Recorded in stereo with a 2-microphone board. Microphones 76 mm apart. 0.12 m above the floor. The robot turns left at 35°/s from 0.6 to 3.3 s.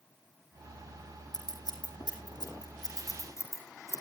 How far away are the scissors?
About 4 m.